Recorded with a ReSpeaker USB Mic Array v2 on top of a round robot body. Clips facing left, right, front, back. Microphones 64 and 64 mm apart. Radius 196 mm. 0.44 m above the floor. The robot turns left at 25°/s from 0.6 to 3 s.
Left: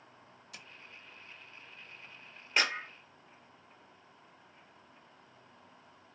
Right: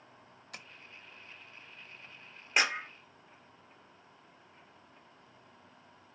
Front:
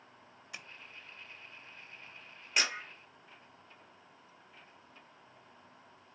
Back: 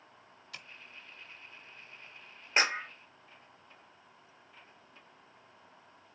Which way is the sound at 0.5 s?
65° right.